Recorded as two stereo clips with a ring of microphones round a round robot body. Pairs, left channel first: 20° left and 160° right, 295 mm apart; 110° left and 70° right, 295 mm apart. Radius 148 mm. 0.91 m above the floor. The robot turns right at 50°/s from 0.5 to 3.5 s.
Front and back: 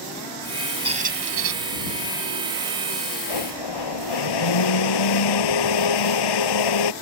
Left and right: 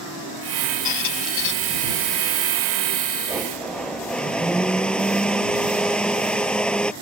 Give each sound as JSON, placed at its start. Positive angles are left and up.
{"t": 0.8, "sound": "a squeak", "azimuth_deg": 130}
{"t": 3.3, "sound": "a blender", "azimuth_deg": 15}